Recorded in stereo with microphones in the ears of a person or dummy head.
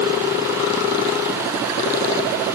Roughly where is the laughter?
I don't hear laughter.